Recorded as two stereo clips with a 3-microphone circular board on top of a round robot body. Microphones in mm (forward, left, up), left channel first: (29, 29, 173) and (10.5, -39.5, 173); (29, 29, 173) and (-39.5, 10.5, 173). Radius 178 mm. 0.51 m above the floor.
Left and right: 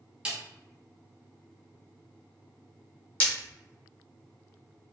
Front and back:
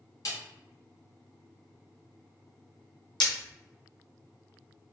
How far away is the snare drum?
About 0.7 m.